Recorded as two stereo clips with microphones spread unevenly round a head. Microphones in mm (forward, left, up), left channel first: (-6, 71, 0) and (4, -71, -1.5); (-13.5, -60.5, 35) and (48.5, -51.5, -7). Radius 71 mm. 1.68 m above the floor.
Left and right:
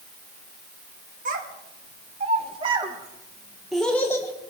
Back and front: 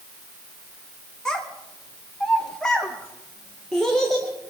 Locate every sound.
1.2 s a child speaking: 110° right, 1.6 m; by 4.5 s 145° left, 1.0 m